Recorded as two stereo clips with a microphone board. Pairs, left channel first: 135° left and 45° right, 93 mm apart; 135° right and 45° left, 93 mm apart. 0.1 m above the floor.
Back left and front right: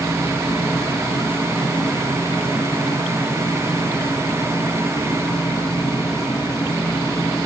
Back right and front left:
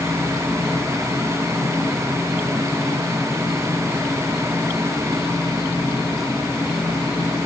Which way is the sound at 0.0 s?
130° left.